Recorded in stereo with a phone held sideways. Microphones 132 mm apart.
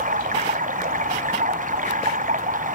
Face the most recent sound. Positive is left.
turn(degrees=-80)